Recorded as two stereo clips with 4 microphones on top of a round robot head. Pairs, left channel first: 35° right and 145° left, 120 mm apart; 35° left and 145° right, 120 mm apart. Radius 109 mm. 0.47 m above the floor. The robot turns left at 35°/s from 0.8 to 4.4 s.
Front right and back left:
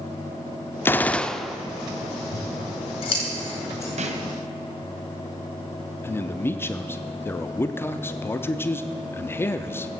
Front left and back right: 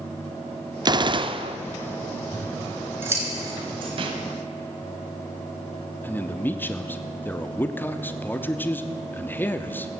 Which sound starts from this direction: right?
A gunshot, at 0.8 s.